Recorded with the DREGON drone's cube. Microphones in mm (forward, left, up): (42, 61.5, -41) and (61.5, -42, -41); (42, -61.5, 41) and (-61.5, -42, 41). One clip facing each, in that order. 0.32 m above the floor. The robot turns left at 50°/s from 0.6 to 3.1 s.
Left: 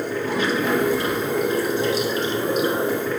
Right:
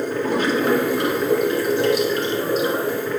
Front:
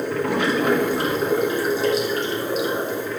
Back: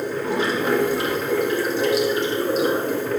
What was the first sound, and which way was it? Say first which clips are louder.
Running water: right 2 dB, front 1 dB; 35° right.